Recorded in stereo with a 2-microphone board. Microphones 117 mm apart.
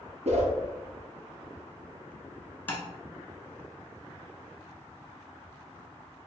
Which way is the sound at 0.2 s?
70° right (ahead or behind).